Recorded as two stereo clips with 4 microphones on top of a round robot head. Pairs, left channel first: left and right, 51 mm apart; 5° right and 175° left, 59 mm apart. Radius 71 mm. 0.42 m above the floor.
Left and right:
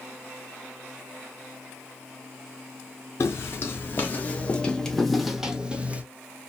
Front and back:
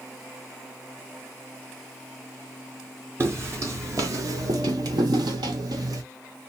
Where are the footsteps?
130° left, 1.4 m; by 6.0 s 150° right, 1.0 m.